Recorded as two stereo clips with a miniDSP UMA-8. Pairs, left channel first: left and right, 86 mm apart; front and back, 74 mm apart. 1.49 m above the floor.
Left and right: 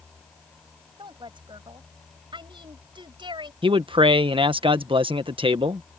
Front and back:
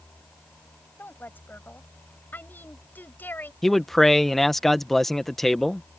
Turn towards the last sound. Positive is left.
turn(degrees=-90)